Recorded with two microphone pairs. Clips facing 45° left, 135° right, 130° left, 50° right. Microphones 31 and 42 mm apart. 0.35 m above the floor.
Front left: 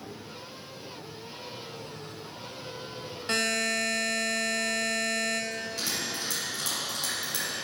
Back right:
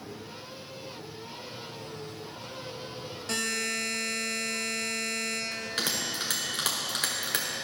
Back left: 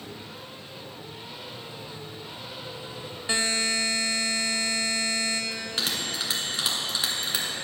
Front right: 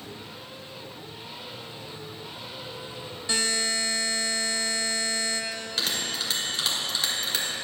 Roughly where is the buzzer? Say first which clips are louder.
Front left 4 dB, back left 1 dB; left.